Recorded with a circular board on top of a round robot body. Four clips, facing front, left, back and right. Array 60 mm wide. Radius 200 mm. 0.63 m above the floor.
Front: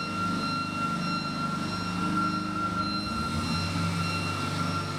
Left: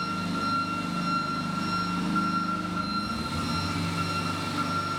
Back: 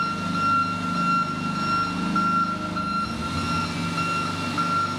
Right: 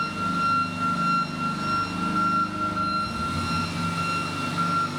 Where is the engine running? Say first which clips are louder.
Right 4 dB, back 6 dB; 170° right, 1.1 m.